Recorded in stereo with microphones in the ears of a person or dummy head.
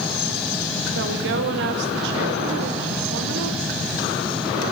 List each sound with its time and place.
0.9 s a woman speaking: 60° right (ahead or behind), 1.1 m